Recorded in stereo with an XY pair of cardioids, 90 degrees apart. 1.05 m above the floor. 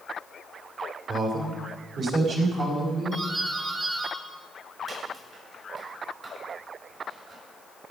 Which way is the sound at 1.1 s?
60° right.